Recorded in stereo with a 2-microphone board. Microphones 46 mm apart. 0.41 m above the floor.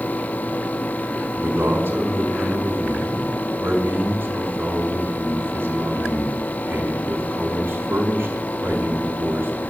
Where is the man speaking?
55° right (ahead or behind), 4.5 m.